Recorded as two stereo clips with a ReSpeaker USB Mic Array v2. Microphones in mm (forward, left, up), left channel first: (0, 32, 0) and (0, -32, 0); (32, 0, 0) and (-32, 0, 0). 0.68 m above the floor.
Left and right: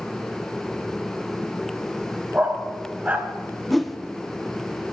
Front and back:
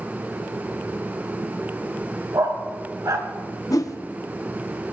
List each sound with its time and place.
2.3 s a dog barking: 155° right, 1.6 m
3.7 s a whoosh: straight ahead, 0.7 m